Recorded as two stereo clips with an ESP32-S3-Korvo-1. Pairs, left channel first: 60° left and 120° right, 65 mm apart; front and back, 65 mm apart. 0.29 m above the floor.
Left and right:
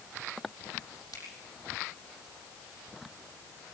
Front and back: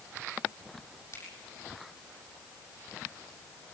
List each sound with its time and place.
1.1 s a finger snap: 40° left, 7.5 m